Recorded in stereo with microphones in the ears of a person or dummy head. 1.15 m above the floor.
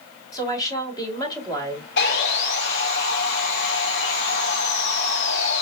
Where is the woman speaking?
20° left (ahead or behind), 3 m.